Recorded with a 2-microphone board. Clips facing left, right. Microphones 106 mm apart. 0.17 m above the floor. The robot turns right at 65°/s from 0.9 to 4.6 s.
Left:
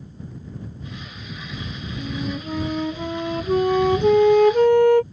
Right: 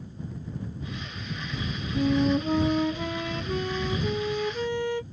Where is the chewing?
No chewing in this recording.